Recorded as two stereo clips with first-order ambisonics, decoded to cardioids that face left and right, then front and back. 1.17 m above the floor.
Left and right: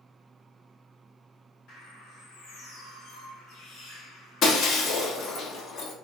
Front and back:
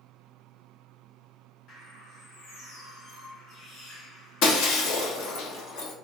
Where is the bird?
40° left, 2.5 m.